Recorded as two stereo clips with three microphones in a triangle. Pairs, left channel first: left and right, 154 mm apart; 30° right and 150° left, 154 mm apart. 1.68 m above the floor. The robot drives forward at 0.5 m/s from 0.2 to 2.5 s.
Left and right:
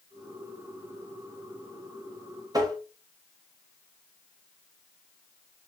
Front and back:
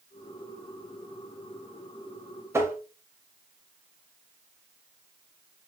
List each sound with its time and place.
2.5 s tapping: 145° right, 0.9 m